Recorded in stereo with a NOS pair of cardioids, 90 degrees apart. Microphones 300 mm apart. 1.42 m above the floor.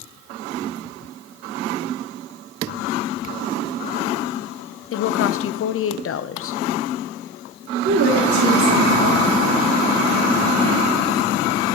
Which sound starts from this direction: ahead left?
A woman speaking, at 4.9 s.